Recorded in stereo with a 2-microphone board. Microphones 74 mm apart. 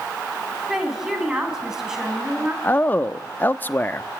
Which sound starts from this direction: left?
A man speaking, at 2.6 s.